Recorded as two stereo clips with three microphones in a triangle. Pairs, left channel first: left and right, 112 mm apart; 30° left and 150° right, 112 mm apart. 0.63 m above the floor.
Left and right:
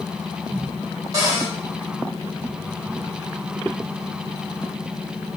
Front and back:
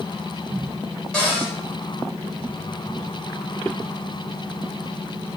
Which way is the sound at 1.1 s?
50° right.